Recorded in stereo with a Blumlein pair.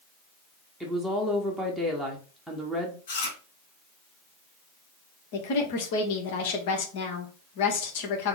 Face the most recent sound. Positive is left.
turn(degrees=50)